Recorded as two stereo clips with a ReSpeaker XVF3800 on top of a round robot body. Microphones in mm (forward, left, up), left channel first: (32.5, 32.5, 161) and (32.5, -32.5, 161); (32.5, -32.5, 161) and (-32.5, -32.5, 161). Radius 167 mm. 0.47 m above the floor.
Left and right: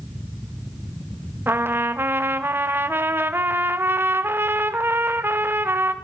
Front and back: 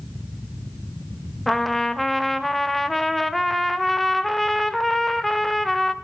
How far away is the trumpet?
About 1.1 m.